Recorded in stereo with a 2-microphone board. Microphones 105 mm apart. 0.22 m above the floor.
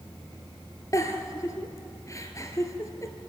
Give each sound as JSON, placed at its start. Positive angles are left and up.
{"t": 0.9, "sound": "a giggle", "side_deg": 30, "distance_m": 1.9}